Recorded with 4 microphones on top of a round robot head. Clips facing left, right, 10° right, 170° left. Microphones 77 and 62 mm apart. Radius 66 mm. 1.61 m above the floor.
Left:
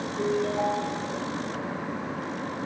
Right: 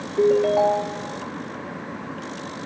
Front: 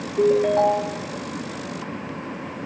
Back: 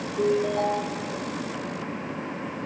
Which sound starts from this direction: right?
A ringtone, at 0.2 s.